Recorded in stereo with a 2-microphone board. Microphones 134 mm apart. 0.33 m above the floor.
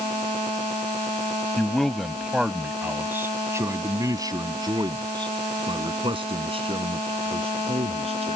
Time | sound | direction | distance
1.6 | a man speaking | 5° left (ahead or behind) | ?